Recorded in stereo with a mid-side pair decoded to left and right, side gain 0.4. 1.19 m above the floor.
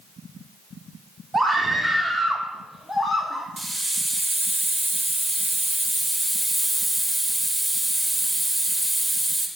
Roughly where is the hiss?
Ahead.